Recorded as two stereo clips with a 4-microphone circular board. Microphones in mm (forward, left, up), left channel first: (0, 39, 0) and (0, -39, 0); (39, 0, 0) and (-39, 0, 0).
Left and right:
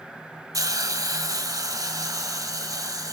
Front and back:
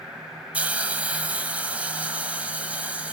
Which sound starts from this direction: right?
A hiss, at 0.5 s.